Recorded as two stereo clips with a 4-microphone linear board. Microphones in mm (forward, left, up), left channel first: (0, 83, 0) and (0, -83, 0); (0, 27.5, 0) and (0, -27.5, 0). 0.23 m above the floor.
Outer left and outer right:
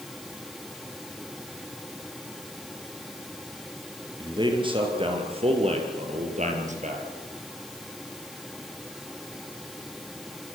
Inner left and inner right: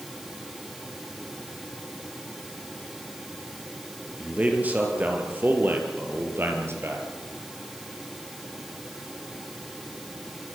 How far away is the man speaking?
About 5 m.